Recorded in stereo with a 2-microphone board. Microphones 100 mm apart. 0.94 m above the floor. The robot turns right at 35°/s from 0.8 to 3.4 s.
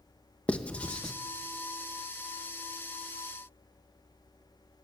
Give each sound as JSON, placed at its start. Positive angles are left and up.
{"t": 0.5, "sound": "writing", "side_deg": 10, "distance_m": 1.1}